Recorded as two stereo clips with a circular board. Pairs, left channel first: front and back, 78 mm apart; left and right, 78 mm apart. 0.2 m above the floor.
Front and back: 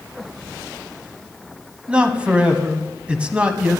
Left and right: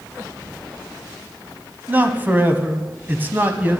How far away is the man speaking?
About 1.1 m.